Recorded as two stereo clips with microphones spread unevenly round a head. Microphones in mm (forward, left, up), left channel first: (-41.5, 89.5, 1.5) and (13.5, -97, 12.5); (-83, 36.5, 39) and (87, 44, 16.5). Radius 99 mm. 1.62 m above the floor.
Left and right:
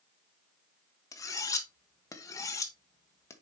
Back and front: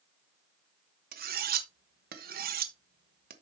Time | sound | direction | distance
1.1 | cutlery clinking | 30° left | 1.1 m